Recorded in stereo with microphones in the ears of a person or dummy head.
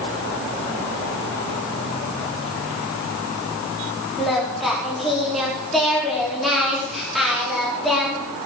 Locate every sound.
4.2 s singing: centre (ahead or behind), 3.5 m